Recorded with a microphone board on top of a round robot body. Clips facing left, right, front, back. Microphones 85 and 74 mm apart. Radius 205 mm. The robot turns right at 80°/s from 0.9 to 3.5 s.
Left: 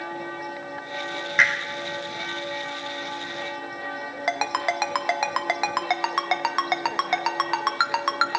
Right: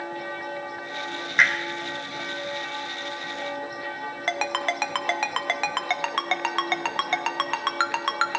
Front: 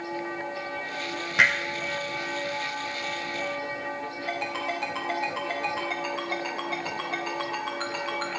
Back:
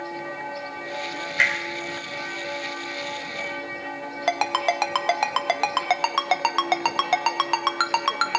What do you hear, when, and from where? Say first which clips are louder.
1.4 s hammering: even, front 1 dB; straight ahead, 0.5 m; by 1.5 s 10° left, 0.5 m
4.3 s a ringtone: left 2 dB, back 9 dB; 165° left, 0.8 m